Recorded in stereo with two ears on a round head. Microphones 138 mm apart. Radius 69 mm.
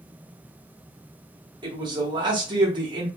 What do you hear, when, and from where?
1.6 s a man speaking: 30° right (ahead or behind), 1.1 m